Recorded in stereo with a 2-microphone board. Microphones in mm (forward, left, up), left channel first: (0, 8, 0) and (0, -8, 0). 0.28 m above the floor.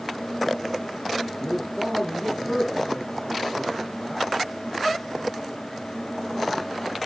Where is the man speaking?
25° left (ahead or behind), 2 m.